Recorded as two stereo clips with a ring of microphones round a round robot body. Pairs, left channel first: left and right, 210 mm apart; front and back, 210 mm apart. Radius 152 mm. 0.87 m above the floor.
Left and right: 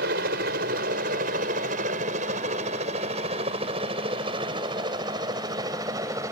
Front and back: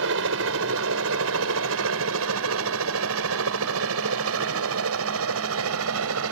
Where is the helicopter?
145° right; by 6.3 s 170° right.